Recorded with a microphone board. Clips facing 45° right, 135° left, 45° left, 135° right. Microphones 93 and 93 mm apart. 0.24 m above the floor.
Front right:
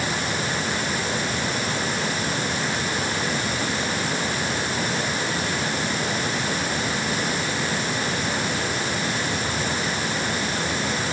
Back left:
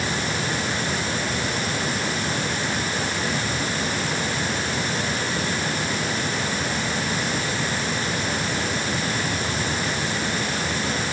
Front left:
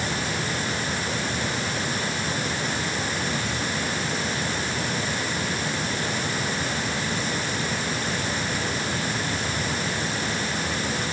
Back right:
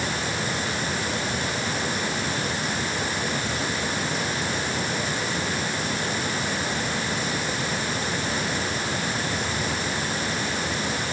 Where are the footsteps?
No footsteps in this recording.